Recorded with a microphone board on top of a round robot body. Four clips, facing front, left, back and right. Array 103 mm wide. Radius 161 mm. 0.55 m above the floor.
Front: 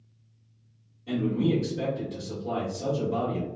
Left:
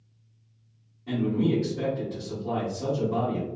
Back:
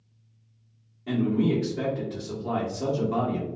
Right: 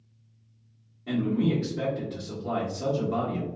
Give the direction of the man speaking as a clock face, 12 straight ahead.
5 o'clock.